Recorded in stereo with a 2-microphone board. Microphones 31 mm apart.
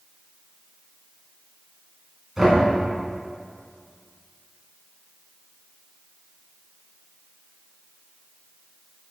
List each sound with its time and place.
2.4 s knocking: 15° right (ahead or behind), 2.5 m